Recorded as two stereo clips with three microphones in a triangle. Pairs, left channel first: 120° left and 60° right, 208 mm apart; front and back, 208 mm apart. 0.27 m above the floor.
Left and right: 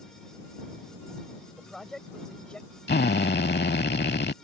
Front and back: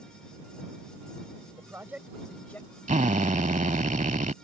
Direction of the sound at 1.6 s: 155° right.